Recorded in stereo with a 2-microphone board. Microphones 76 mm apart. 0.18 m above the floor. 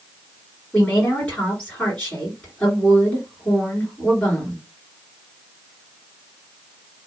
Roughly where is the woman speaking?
Centre.